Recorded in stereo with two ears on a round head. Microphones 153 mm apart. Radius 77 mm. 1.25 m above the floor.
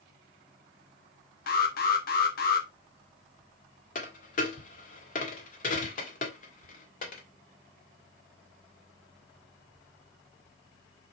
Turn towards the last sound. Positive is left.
turn(degrees=45)  # may be behind; listen again after turning